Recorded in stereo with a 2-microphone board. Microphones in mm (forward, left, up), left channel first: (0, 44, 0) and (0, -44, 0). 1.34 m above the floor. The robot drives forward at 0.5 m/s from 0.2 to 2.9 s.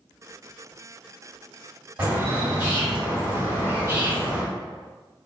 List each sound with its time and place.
2.0 s a bird: 25° right (ahead or behind), 1.7 m; by 4.4 s 35° right (ahead or behind), 1.4 m